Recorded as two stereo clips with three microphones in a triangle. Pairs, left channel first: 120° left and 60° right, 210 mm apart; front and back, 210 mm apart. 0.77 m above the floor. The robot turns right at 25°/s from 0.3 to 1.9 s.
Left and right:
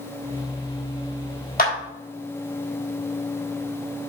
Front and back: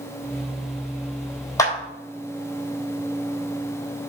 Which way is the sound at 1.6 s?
75° left.